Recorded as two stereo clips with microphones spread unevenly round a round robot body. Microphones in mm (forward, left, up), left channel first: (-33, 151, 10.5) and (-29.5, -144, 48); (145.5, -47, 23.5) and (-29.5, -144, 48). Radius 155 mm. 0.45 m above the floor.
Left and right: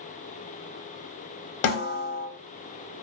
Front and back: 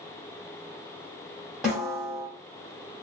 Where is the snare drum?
120° left, 0.7 m.